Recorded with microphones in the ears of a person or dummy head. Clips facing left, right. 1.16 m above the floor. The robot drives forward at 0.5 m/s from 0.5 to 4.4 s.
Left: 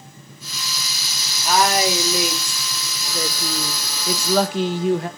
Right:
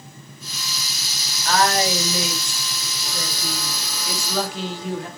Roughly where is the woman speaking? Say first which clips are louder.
Left 1 dB; centre.